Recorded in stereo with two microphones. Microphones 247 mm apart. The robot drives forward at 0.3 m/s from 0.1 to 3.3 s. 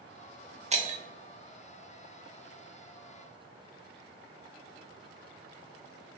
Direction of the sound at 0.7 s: 25° right (ahead or behind).